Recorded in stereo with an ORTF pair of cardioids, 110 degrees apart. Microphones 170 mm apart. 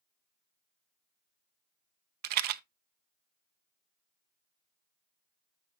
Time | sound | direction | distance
2.2 | a rattle | 65° right | 0.7 m